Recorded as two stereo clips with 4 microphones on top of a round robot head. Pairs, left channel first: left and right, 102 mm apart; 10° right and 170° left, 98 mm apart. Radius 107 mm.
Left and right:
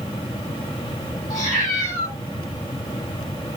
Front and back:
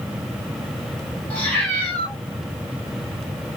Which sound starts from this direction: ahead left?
A cat meowing, at 1.3 s.